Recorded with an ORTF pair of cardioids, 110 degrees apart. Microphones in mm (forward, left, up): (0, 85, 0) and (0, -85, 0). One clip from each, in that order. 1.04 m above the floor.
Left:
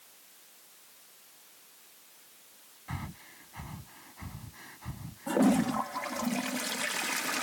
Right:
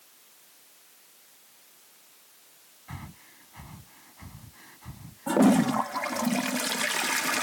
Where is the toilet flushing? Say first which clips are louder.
Right 5 dB; 25° right.